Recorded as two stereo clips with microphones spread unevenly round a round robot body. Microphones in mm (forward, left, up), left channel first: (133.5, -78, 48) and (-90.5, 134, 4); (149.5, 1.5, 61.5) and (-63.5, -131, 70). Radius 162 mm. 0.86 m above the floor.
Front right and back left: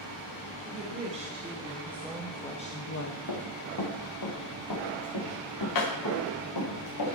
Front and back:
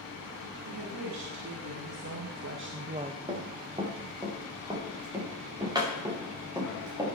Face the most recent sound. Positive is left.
turn(degrees=-70)